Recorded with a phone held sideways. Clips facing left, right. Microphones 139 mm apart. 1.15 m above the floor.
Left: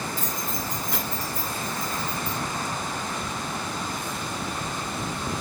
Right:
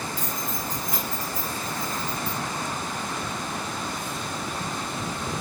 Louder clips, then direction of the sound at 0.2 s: Even; 10° right (ahead or behind).